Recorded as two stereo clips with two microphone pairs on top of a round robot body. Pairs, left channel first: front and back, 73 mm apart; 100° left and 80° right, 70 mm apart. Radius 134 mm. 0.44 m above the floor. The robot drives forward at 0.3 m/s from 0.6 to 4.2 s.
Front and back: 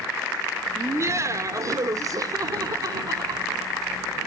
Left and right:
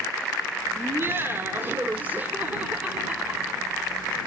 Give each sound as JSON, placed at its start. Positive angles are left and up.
{"t": 0.8, "sound": "laughter", "azimuth_deg": -130, "distance_m": 1.3}